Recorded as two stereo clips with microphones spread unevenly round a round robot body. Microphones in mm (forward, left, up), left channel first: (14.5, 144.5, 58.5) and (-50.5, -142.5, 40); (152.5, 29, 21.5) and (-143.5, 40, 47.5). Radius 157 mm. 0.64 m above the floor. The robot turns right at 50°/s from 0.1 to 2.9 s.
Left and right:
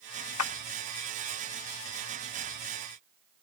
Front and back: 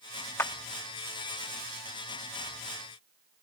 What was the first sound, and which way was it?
A clap, 75° left.